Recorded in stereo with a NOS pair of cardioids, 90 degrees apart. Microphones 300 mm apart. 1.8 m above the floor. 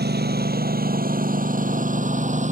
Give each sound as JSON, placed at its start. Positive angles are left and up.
{"t": 0.0, "sound": "a lawn mower", "azimuth_deg": -35}